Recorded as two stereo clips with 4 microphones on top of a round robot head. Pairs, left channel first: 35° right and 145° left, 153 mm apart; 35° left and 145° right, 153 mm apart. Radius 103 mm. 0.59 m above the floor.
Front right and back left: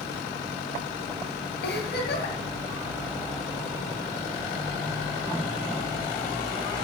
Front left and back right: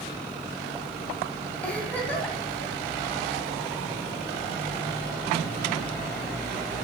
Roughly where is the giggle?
Ahead right.